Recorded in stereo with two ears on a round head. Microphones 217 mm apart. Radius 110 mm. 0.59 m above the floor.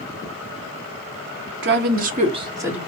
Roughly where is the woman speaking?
Right.